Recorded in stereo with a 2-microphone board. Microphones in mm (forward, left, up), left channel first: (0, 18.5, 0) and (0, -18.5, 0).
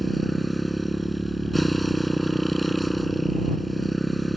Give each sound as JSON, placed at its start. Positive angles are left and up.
{"t": 0.0, "sound": "a motorcycle", "side_deg": 0}